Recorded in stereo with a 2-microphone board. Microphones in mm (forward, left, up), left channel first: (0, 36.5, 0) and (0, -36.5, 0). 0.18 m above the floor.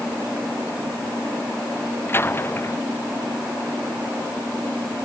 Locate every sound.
2.1 s a door slam: 30° left (ahead or behind)